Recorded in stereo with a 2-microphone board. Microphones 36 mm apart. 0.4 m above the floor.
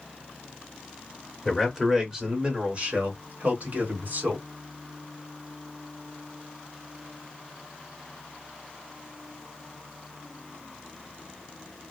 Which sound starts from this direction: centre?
A man speaking, at 1.4 s.